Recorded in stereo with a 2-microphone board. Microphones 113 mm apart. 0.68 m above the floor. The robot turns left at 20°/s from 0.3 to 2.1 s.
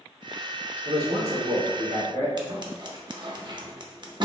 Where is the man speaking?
65° right (ahead or behind), 1.6 m; by 2.3 s 70° right (ahead or behind), 1.6 m.